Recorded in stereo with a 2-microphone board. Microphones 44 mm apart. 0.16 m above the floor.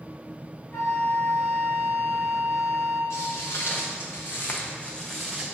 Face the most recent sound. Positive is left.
turn(degrees=-10)  # may be behind; listen again after turning